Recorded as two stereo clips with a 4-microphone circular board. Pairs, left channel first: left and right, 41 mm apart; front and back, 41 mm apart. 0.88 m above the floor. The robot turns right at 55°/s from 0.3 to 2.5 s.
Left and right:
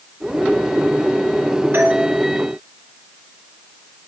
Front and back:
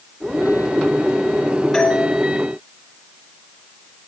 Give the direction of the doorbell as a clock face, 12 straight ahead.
3 o'clock.